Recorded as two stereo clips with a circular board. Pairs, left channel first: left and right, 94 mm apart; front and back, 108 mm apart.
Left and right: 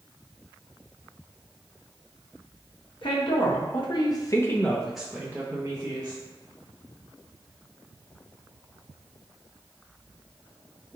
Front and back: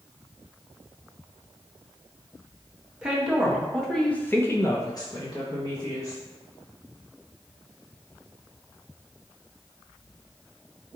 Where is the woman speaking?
100° left, 1.1 m; by 6.2 s 45° right, 1.0 m.